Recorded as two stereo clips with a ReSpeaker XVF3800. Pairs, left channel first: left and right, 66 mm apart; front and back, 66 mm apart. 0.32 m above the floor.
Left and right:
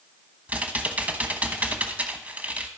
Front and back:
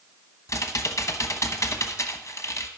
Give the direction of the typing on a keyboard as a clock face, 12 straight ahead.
1 o'clock.